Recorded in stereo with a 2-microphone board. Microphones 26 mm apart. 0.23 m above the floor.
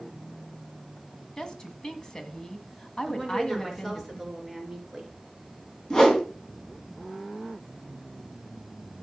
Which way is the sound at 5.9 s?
25° left (ahead or behind).